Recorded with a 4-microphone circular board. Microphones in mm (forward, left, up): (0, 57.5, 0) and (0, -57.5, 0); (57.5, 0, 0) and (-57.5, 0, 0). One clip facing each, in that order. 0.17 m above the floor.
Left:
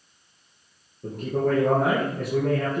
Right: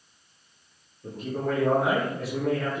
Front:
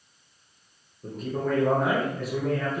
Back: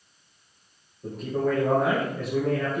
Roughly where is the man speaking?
Left.